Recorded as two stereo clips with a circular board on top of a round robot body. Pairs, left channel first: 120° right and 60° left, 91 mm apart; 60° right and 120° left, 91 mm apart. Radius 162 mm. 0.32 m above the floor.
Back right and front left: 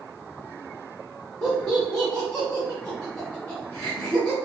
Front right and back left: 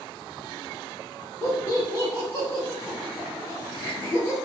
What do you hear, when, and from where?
1.4 s laughter: 50° right, 1.3 m